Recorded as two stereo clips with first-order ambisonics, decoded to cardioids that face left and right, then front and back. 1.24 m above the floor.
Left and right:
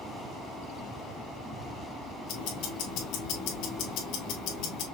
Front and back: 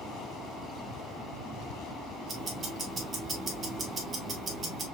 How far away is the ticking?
About 1.6 m.